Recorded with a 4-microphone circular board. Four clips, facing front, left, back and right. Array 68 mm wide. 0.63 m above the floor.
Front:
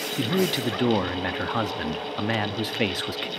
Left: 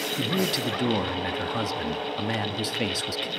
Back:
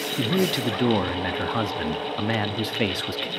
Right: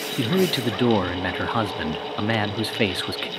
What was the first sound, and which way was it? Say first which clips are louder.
A man speaking: right 6 dB, back 1 dB; 85° right.